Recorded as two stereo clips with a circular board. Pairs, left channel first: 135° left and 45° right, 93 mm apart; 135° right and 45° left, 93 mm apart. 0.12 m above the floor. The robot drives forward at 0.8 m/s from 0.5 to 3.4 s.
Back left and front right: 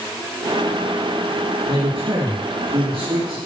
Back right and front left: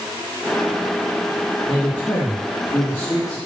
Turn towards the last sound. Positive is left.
turn(degrees=-85)